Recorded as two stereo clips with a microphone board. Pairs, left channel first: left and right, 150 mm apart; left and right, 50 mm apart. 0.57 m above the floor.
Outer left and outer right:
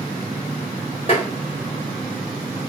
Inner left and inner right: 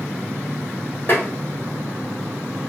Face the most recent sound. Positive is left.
turn(degrees=40)  # may be behind; listen again after turning